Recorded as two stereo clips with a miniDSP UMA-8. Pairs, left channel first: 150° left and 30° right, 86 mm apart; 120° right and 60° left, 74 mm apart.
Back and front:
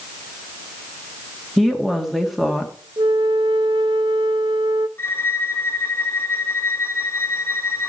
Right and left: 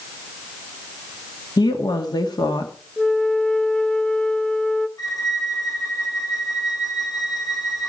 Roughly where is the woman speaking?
Behind right.